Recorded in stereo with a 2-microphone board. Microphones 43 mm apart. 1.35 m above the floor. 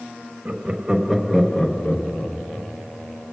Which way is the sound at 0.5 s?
30° right (ahead or behind).